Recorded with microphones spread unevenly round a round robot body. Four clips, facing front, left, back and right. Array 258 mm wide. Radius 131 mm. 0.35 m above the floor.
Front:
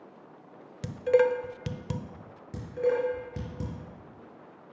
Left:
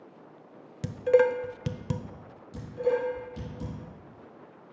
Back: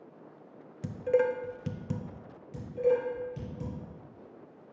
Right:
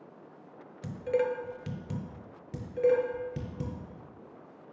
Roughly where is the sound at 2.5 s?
Ahead right.